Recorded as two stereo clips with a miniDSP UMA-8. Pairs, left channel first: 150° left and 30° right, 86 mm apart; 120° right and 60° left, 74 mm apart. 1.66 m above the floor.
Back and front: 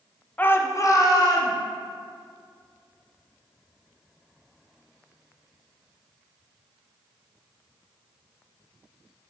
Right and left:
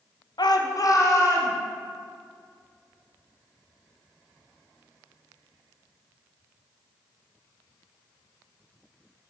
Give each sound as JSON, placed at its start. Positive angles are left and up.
{"t": 0.4, "sound": "a shout", "azimuth_deg": -140, "distance_m": 0.5}